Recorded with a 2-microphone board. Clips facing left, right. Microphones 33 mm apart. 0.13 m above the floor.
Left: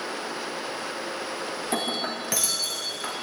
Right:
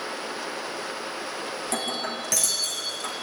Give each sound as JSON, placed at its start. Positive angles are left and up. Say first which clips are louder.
{"t": 1.6, "sound": "breaking glass", "louder": "left 2 dB", "side_deg": 20, "distance_m": 3.5}